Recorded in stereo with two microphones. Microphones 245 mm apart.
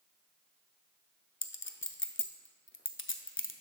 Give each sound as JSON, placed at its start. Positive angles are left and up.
{"t": 1.4, "sound": "a clink", "side_deg": 55, "distance_m": 0.5}